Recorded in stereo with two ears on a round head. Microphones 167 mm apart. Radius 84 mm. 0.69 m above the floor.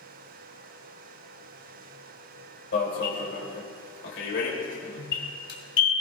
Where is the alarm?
70° left (ahead or behind), 3.5 m.